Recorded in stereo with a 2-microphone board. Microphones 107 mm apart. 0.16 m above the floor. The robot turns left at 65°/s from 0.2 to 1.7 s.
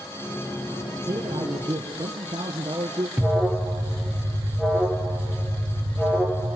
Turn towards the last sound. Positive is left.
turn(degrees=-5)  # may be behind; listen again after turning